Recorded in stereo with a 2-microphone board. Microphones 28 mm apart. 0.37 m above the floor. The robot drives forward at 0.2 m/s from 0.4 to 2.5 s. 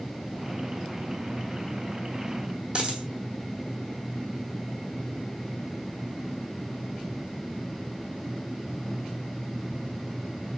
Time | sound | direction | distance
2.8 | a dropped coin | 35° right (ahead or behind) | 1.4 m